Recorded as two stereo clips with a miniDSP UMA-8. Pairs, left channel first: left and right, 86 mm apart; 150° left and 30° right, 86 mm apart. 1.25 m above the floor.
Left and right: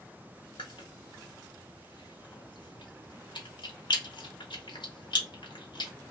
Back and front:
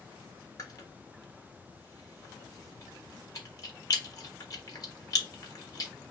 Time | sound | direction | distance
0.6 | chewing | 110° left | 1.2 m